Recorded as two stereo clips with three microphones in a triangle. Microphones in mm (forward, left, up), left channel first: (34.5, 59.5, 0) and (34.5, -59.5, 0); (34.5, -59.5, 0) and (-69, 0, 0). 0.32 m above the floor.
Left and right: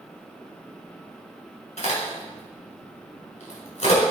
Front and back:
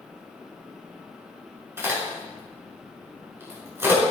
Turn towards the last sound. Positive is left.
turn(degrees=80)